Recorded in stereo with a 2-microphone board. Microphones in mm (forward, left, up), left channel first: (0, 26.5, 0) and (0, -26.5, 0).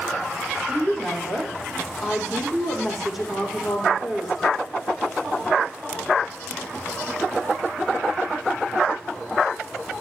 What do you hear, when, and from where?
0.7 s a woman speaking: 5° right (ahead or behind), 5 m